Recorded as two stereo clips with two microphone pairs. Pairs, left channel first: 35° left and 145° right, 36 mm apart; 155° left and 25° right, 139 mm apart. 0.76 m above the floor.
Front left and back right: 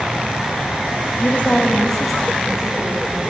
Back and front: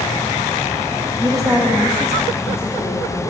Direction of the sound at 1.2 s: 20° left.